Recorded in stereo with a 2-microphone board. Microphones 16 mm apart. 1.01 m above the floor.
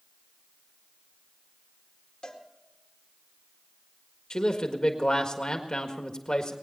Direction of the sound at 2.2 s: 60° left (ahead or behind).